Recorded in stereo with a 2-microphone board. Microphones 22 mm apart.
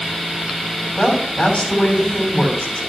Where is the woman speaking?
65° left (ahead or behind), 5.5 m.